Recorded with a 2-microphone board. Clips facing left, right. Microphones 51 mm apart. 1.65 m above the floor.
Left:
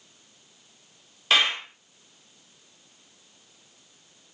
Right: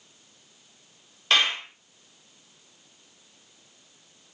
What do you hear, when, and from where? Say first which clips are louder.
1.3 s a clap: left 1 dB; centre (ahead or behind), 3 m